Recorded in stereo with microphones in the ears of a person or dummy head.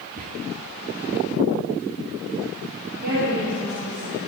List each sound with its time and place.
0.2 s whispering: 45° right (ahead or behind), 0.8 m
2.9 s a woman speaking: 65° right (ahead or behind), 4 m